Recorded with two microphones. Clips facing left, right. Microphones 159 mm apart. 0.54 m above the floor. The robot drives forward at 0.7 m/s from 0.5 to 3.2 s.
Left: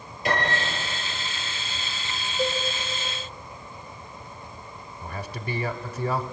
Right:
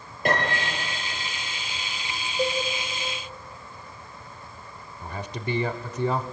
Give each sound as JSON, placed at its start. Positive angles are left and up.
{"t": 0.2, "sound": "a piano", "side_deg": -50, "distance_m": 8.0}
{"t": 2.4, "sound": "a cowbell", "side_deg": -20, "distance_m": 3.0}
{"t": 5.0, "sound": "a man speaking", "side_deg": -20, "distance_m": 1.2}